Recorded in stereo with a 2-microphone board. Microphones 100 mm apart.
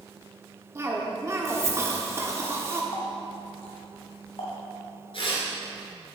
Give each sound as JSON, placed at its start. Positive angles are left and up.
{"t": 0.8, "sound": "a cough", "side_deg": -30, "distance_m": 1.3}
{"t": 2.9, "sound": "a running tap", "side_deg": 65, "distance_m": 2.0}
{"t": 5.1, "sound": "tearing paper", "side_deg": 60, "distance_m": 2.5}